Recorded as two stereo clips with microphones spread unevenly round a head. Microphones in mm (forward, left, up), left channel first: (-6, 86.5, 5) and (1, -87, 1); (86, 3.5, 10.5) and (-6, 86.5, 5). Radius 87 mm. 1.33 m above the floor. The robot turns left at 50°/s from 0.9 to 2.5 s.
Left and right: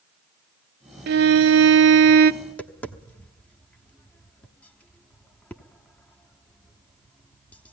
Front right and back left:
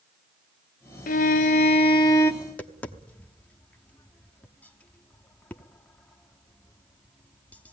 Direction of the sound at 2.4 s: 25° left.